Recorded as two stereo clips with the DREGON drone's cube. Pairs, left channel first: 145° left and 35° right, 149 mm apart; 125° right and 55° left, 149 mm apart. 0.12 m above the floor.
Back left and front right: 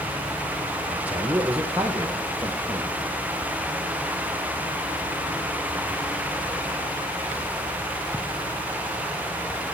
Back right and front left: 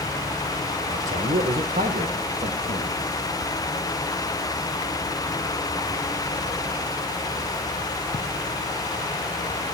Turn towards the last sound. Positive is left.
turn(degrees=50)